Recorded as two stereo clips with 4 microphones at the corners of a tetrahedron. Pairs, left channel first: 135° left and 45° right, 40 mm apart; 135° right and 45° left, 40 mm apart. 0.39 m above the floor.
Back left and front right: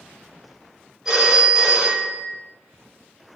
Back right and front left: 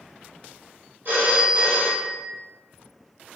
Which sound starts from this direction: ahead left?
A phone ringing, at 1.1 s.